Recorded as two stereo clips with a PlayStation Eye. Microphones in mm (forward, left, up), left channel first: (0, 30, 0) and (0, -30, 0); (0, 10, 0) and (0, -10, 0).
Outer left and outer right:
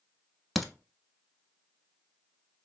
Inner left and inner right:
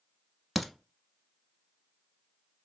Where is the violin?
No violin in this recording.